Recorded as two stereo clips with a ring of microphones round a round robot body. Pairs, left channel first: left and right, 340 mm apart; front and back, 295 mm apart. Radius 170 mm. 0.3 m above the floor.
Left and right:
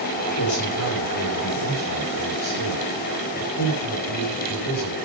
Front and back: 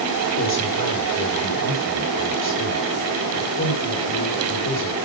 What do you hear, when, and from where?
0.4 s a man speaking: 45° left, 7 m